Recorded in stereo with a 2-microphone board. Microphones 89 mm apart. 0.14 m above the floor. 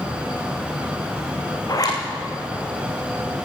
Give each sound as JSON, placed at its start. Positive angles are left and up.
{"t": 1.7, "sound": "a zipper", "side_deg": 45, "distance_m": 4.5}